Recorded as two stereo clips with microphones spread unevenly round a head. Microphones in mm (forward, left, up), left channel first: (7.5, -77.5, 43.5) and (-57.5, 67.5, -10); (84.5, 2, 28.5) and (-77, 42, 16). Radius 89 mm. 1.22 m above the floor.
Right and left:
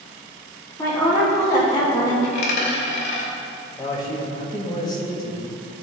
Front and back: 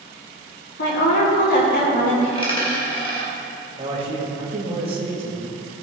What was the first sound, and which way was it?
A woman speaking, 10° left.